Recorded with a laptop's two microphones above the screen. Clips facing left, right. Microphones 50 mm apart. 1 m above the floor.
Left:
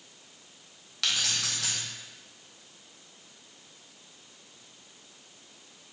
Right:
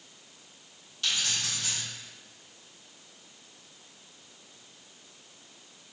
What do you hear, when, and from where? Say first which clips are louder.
1.0 s keys jangling: left 1 dB; 80° left, 0.8 m